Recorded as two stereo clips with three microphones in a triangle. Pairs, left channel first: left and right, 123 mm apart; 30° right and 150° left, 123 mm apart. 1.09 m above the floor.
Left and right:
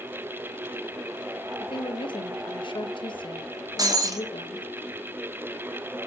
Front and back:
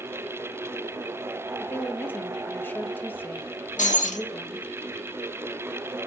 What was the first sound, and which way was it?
A woman speaking, 45° left.